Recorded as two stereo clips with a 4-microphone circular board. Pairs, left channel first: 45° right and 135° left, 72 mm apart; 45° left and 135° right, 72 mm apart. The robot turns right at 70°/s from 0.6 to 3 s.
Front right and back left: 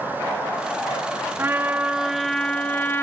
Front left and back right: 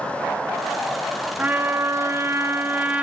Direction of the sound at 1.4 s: 170° left.